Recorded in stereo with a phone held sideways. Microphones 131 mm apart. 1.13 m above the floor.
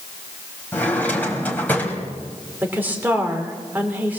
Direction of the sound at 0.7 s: 15° left (ahead or behind).